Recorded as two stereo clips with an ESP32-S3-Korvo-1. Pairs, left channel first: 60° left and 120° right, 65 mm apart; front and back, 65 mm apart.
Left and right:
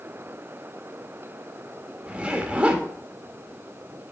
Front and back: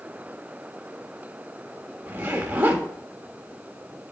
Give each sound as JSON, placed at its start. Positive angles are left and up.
{"t": 2.1, "sound": "a zipper", "azimuth_deg": -165, "distance_m": 1.3}